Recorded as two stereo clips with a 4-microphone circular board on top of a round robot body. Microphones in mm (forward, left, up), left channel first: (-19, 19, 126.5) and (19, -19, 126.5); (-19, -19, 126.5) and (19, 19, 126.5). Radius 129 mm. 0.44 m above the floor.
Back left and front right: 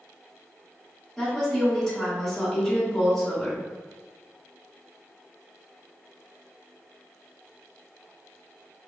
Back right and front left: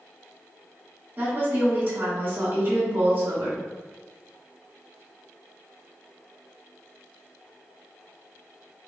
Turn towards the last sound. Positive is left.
turn(degrees=55)